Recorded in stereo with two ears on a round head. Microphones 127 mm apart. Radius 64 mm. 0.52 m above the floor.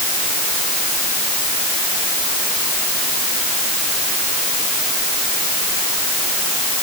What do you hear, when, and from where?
Only background noise.